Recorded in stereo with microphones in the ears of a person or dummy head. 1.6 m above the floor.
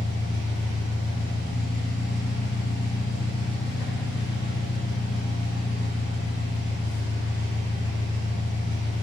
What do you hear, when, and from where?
0.0 s an engine running: 50° left (ahead or behind), 1.1 m